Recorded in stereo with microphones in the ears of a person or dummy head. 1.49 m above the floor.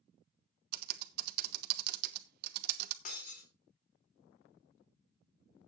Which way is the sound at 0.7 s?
55° right (ahead or behind).